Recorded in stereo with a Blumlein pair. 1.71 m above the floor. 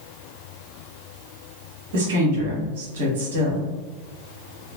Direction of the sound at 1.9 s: 55° right.